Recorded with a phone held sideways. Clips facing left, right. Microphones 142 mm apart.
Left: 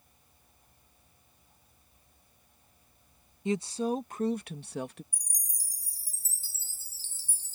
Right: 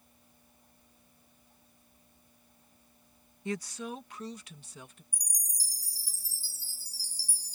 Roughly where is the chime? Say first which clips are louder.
Right 3 dB; left.